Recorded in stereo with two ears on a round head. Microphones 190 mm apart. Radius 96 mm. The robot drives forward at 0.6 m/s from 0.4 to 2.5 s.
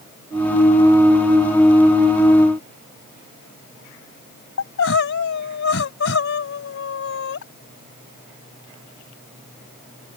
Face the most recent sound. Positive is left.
turn(degrees=65)  # may be behind; listen again after turning